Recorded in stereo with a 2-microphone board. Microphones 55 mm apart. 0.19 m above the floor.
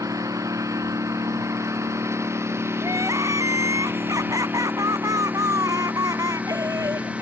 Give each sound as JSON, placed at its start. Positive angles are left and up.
{"t": 0.0, "sound": "a lawn mower", "side_deg": -80}
{"t": 2.8, "sound": "crying", "side_deg": -80}